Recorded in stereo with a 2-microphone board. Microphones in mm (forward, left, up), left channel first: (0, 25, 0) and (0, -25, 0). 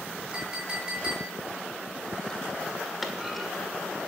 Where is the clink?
20° right (ahead or behind), 7 m.